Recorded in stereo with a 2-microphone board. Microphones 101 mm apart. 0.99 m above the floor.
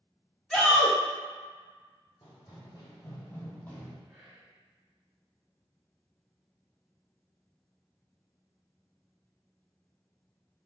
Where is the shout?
Centre (ahead or behind), 1.1 m.